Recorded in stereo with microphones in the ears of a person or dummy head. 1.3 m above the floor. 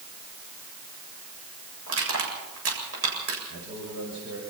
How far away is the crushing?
About 7.5 m.